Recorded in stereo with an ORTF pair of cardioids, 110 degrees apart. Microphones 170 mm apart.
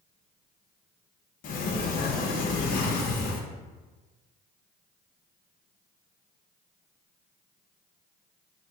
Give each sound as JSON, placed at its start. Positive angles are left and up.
{"t": 1.4, "sound": "a sliding door", "azimuth_deg": 55, "distance_m": 0.7}